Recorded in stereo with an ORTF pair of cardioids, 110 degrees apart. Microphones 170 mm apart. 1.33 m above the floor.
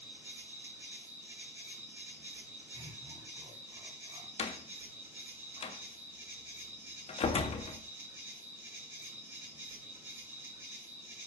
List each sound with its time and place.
0.0 s an insect: 15° right, 6 m
2.7 s laughter: 30° right, 7 m
4.4 s a door slam: 35° left, 2 m